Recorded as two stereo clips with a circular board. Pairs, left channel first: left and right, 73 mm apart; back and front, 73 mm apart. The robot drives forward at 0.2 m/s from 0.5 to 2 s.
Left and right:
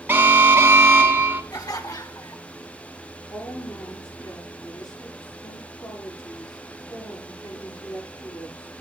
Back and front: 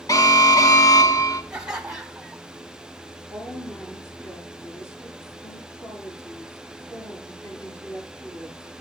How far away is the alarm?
About 2 m.